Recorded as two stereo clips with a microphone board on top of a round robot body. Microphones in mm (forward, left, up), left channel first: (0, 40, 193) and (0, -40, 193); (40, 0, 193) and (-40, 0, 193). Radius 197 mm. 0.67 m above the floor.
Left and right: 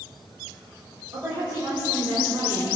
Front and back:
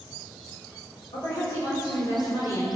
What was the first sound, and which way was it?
A woman speaking, 30° right.